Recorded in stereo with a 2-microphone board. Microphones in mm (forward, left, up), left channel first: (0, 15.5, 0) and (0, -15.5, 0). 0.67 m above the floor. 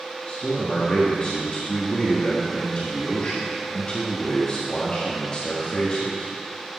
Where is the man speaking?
35° left (ahead or behind), 1.1 m.